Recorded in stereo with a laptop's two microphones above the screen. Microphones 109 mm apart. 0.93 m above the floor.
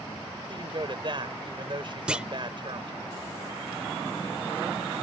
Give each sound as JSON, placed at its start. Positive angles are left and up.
{"t": 0.5, "sound": "a woman speaking", "side_deg": -50}
{"t": 2.1, "sound": "a clunk", "side_deg": -10}